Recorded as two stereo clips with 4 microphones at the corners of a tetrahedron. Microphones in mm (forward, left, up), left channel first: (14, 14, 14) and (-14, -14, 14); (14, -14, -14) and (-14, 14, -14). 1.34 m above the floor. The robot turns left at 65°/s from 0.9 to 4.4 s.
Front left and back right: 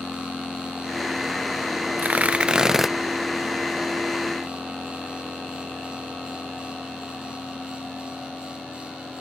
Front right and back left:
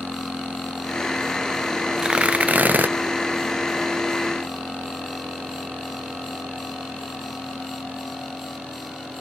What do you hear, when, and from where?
2.0 s tearing paper: 160° right; by 2.9 s 140° left